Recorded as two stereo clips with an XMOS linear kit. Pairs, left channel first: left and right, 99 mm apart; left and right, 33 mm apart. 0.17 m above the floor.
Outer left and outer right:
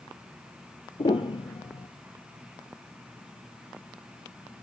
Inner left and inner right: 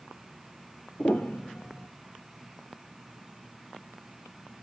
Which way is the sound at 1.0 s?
70° left (ahead or behind).